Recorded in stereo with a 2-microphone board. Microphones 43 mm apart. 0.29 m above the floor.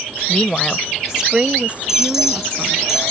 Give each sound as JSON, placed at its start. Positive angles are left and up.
{"t": 0.3, "sound": "a woman speaking", "side_deg": 30}
{"t": 1.9, "sound": "an alarm", "side_deg": -10}